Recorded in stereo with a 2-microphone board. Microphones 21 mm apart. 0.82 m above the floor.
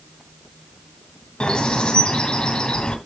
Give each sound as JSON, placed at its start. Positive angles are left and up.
{"t": 1.4, "sound": "a bird", "side_deg": 55, "distance_m": 2.5}